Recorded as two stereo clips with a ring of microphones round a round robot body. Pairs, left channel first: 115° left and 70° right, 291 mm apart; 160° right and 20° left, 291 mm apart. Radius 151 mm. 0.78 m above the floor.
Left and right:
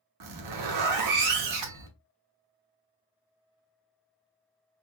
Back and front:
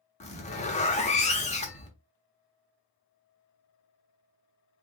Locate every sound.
0.2 s a zipper: 90° right, 1.0 m